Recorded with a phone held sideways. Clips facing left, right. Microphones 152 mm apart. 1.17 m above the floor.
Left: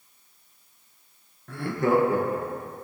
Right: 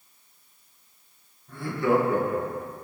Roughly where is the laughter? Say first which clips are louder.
Left 1 dB; left.